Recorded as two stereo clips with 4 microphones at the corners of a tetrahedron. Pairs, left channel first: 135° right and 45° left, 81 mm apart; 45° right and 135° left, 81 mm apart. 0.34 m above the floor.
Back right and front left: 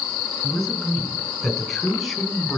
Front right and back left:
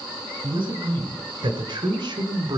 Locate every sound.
0.4 s a man speaking: 140° left, 4.5 m; by 2.6 s 130° left, 2.5 m